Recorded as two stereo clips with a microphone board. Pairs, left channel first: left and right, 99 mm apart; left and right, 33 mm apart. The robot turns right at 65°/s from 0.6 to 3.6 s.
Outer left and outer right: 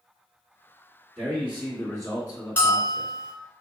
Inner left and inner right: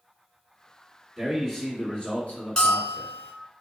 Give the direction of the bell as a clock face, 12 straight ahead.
11 o'clock.